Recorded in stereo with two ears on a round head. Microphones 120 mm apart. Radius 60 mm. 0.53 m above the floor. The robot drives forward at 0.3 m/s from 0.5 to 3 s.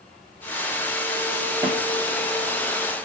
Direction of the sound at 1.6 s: 20° right (ahead or behind).